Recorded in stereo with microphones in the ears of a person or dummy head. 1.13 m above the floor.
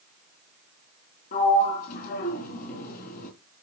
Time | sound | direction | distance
1.3 | a sliding door | 45° left (ahead or behind) | 4 m